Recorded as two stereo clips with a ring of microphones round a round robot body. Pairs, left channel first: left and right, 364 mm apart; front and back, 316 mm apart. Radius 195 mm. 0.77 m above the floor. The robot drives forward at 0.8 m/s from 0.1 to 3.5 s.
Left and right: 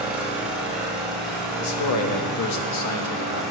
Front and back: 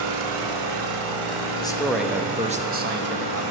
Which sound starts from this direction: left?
A man speaking, at 1.6 s.